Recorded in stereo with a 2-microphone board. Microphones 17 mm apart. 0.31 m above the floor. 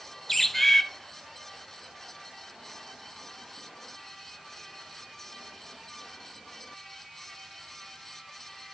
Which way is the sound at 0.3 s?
10° left (ahead or behind).